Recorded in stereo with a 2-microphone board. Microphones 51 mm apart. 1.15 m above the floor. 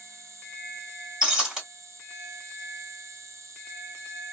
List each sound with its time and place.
0.0 s an insect: 80° right, 0.8 m
1.2 s breaking glass: 10° right (ahead or behind), 1.5 m